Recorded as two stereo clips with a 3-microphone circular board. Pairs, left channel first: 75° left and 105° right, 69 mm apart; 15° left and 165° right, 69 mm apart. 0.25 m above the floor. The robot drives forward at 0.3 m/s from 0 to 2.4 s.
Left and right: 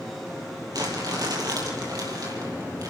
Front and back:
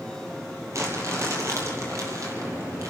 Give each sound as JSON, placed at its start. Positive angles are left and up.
{"t": 0.7, "sound": "crumpling", "azimuth_deg": -120, "distance_m": 4.5}